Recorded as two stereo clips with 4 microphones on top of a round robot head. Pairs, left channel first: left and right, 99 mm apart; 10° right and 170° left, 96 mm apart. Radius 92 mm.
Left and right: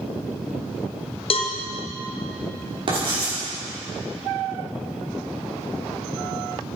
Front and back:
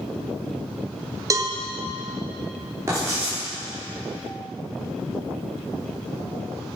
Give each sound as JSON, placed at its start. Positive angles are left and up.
{"t": 1.3, "sound": "a cowbell", "azimuth_deg": 115, "distance_m": 1.1}
{"t": 2.9, "sound": "writing", "azimuth_deg": -125, "distance_m": 4.5}